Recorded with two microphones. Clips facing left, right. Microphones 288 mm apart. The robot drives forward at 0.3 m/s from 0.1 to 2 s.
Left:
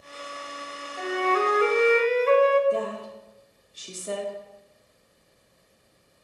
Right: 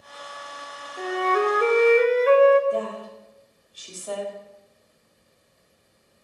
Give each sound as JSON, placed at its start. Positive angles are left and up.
{"t": 1.0, "sound": "a flute", "side_deg": -40, "distance_m": 0.7}
{"t": 2.7, "sound": "a woman speaking", "side_deg": 30, "distance_m": 0.9}